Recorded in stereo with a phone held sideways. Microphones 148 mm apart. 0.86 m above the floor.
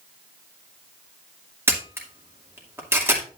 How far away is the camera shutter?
About 2.5 m.